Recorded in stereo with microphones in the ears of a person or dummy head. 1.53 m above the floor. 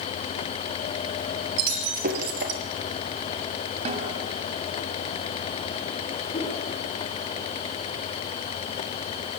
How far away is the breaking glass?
About 4 m.